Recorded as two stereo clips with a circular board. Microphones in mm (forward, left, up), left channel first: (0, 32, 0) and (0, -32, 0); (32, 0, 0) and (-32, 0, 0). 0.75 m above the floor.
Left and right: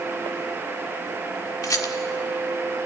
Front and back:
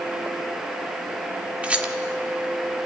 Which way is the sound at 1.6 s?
110° left.